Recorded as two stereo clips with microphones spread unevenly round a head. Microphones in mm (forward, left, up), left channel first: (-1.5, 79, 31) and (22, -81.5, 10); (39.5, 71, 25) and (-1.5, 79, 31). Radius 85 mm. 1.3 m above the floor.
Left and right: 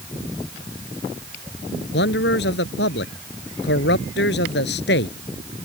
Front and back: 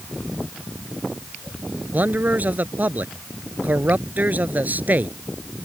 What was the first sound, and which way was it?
A man speaking, 125° left.